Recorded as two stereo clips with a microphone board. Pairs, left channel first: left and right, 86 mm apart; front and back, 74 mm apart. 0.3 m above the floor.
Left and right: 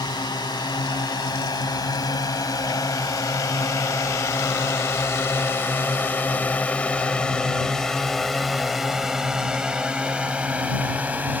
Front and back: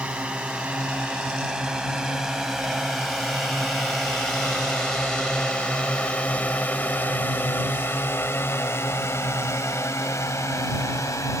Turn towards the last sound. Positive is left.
turn(degrees=-25)